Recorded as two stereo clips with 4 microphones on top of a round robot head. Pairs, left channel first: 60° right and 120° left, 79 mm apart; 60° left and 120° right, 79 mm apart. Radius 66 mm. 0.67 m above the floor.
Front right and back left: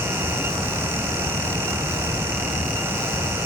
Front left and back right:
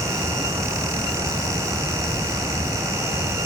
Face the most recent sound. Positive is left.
No sound to turn to.